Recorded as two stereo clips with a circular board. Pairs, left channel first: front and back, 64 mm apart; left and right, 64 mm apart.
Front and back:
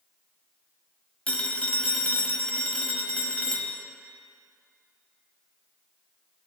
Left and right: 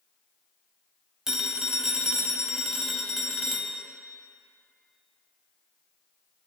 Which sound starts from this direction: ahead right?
A phone ringing, at 1.3 s.